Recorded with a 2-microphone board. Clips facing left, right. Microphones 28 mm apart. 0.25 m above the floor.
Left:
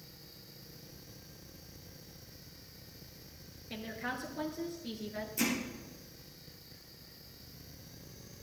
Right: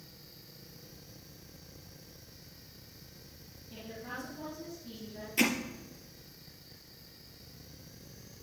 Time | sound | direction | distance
3.7 | a woman speaking | 70° left (ahead or behind) | 4 m
5.4 | hammering | 50° right (ahead or behind) | 3 m